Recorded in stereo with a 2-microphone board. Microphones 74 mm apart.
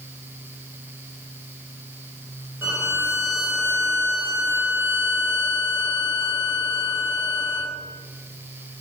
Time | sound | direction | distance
2.6 | a violin | 30° right (ahead or behind) | 2 m